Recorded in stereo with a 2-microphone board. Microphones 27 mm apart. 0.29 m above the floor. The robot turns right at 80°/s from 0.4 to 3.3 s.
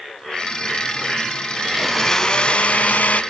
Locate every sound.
1.6 s a blender: 20° right, 0.6 m; by 3.2 s 105° left, 0.6 m